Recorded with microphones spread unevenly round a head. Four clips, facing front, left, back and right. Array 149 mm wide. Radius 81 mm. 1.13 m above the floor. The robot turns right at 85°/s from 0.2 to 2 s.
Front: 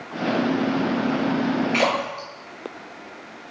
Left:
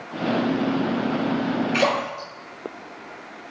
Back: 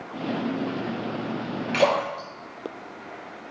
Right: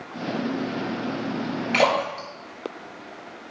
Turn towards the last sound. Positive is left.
turn(degrees=-65)